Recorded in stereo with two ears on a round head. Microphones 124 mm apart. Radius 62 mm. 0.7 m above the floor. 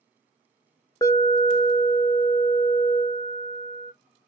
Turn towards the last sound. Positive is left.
turn(degrees=25)  # may be behind; listen again after turning